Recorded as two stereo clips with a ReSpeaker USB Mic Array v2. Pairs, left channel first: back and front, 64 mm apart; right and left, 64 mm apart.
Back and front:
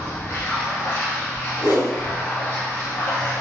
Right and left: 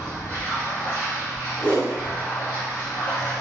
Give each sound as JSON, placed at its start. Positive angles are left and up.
{"t": 0.0, "sound": "running water", "azimuth_deg": -135, "distance_m": 1.2}
{"t": 1.6, "sound": "a whoosh", "azimuth_deg": -155, "distance_m": 0.9}